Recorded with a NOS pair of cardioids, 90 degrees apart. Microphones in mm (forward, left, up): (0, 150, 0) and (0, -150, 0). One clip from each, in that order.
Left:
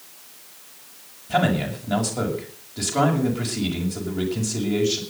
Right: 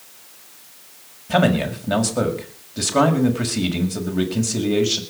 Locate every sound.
1.3 s a man speaking: 35° right, 6.5 m